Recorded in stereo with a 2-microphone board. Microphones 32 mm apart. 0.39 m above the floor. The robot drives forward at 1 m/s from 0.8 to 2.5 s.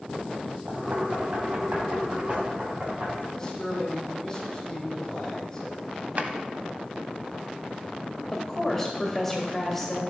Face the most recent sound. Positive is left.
turn(degrees=5)  # may be behind; listen again after turning